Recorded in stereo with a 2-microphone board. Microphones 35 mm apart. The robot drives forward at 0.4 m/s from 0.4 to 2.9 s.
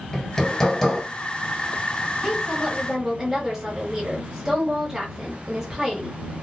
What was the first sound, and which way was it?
Hammering, 15° left (ahead or behind).